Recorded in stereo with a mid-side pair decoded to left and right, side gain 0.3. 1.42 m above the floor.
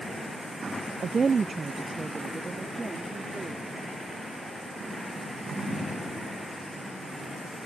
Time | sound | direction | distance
1.0 | a woman speaking | 60° right | ?